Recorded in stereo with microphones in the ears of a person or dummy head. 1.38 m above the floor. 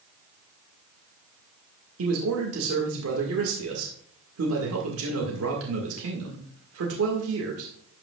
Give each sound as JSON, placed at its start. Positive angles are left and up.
{"t": 2.0, "sound": "a man speaking", "side_deg": -85, "distance_m": 1.8}